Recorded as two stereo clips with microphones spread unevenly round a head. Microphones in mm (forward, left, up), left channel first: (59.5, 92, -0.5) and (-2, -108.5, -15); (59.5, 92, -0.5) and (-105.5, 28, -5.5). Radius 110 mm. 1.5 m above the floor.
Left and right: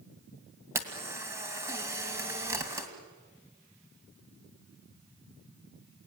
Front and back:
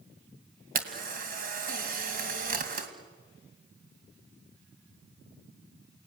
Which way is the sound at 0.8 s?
175° left.